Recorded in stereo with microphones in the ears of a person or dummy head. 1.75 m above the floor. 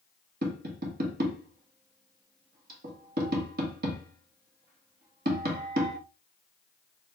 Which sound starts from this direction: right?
Tapping, at 0.4 s.